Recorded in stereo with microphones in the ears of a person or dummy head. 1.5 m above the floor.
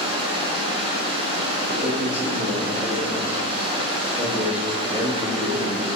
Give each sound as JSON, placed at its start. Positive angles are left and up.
{"t": 0.0, "sound": "running water", "side_deg": -35, "distance_m": 3.0}
{"t": 1.7, "sound": "a man speaking", "side_deg": -15, "distance_m": 2.5}